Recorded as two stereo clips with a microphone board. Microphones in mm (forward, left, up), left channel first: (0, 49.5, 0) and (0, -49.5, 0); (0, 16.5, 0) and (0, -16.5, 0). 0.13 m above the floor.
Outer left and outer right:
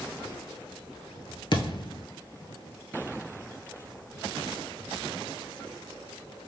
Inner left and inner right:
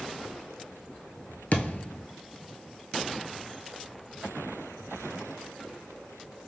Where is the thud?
60° left (ahead or behind), 0.8 m.